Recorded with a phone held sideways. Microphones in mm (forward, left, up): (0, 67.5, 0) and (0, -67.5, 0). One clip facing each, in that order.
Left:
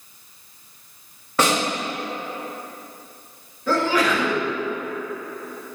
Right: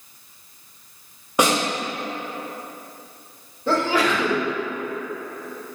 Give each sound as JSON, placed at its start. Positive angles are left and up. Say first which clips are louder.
{"t": 1.4, "sound": "a snare drum", "louder": "right 1 dB", "side_deg": -15, "distance_m": 1.8}
{"t": 3.7, "sound": "a sneeze", "louder": "even", "side_deg": -30, "distance_m": 2.0}